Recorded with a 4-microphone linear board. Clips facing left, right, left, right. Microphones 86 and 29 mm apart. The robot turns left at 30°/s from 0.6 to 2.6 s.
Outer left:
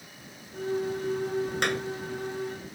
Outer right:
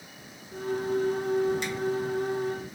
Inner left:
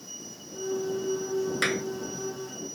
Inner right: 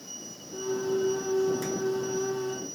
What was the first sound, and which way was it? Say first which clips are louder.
A clap: outer left 3 dB, inner left 4 dB; 60° left (ahead or behind).